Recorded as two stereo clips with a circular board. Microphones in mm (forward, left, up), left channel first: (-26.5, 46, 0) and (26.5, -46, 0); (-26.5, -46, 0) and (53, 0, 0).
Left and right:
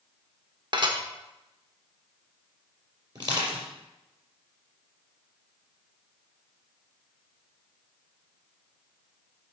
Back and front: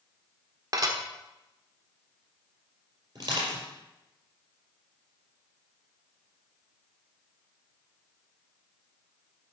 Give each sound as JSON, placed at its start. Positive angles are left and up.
{"t": 0.7, "sound": "dishes clattering", "azimuth_deg": -20, "distance_m": 1.1}
{"t": 3.1, "sound": "crushing", "azimuth_deg": -15, "distance_m": 4.5}